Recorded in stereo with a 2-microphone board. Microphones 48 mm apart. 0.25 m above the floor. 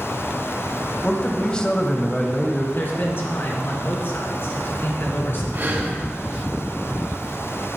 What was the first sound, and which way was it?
A man speaking, 20° left (ahead or behind).